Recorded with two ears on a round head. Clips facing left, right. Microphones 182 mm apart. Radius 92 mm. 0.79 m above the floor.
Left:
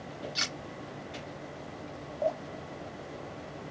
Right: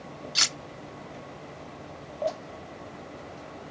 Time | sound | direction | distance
0.3 | cutlery clinking | 55° right (ahead or behind) | ?
2.2 | dripping | centre (ahead or behind) | ?